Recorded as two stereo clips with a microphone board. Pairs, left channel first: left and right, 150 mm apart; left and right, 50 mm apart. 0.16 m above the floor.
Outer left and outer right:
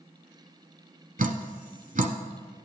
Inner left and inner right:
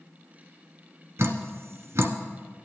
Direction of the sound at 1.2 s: 60° right (ahead or behind).